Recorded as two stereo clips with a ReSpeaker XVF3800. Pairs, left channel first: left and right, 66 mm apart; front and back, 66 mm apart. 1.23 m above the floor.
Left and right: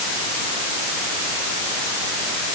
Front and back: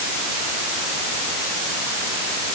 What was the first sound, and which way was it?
Only background noise.